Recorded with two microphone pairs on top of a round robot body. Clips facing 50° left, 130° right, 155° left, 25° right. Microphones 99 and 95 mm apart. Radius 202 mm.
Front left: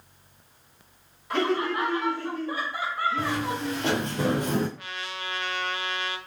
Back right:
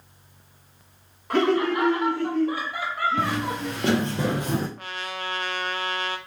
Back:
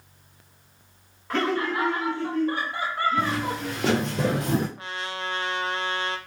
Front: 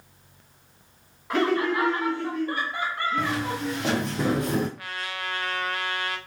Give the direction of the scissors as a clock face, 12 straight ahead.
I don't hear scissors.